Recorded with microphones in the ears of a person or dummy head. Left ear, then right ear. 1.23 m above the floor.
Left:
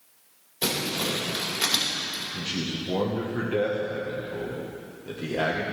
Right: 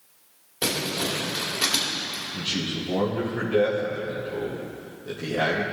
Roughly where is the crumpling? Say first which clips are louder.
Right 1 dB; centre.